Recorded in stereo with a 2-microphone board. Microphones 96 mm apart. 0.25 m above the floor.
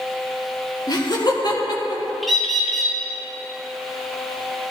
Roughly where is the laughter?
Left.